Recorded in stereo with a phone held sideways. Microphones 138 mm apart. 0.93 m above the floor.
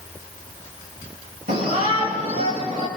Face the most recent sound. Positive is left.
turn(degrees=-80)